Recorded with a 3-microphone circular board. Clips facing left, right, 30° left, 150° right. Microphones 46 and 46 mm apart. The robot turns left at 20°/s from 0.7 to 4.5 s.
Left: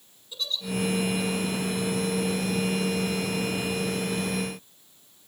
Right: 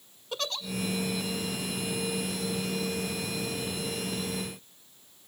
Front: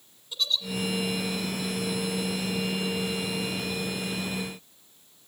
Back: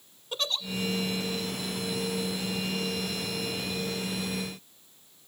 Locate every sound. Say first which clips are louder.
0.3 s a giggle: even, front 2 dB; 110° right, 1.0 m